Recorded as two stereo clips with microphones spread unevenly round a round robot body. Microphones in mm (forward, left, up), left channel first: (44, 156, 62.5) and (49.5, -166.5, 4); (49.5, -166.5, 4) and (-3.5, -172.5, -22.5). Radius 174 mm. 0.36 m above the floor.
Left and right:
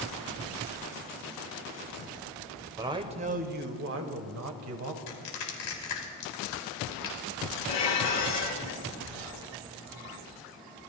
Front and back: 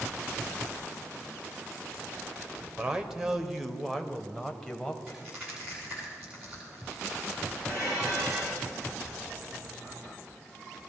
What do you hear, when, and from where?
2.8 s a man speaking: 150° right, 1.0 m; by 5.0 s 85° right, 1.5 m
5.1 s crushing: 115° left, 3 m
7.7 s dishes clattering: 110° left, 3.5 m